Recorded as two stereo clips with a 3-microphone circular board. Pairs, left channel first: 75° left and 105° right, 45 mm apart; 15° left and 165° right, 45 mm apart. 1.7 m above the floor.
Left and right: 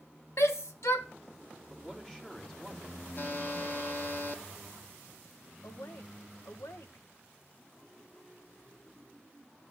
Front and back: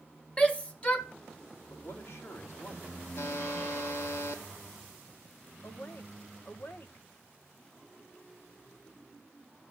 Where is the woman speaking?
55° left, 1.9 m.